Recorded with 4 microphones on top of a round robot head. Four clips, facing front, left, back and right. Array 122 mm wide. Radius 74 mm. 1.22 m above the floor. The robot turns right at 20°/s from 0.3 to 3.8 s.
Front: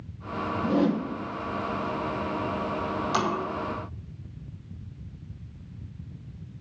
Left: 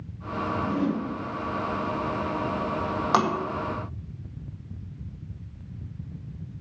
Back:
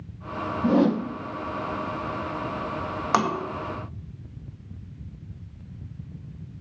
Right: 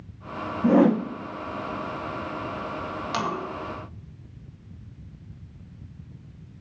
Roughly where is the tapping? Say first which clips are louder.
Left 6 dB, back 5 dB; behind left.